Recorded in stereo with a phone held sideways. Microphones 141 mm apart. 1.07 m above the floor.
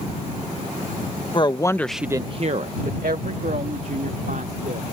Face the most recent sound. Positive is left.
turn(degrees=-70)  # may be behind; listen again after turning